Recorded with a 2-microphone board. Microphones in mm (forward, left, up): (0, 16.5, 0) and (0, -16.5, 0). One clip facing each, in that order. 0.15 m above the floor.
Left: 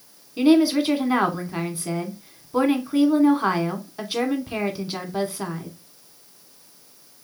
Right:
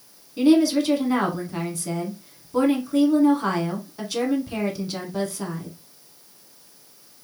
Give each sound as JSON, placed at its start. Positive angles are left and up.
{"t": 0.4, "sound": "a woman speaking", "side_deg": 25, "distance_m": 1.0}